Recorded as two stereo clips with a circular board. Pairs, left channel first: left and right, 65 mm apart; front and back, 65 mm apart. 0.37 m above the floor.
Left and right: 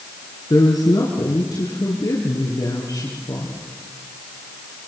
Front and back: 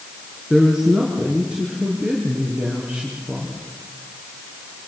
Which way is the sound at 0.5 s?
100° left.